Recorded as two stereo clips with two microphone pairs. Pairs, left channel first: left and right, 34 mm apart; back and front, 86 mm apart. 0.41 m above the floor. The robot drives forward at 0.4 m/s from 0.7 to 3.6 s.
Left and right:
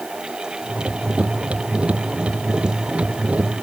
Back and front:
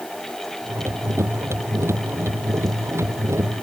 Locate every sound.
Only background noise.